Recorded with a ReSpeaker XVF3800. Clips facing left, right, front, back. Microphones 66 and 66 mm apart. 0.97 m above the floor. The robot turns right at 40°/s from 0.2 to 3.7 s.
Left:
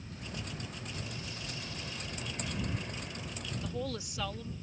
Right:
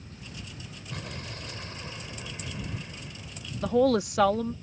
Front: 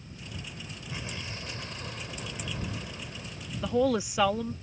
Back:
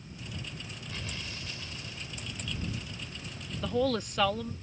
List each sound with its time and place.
0.9 s an explosion: 75° right; by 3.5 s 30° left
3.6 s a woman speaking: 80° right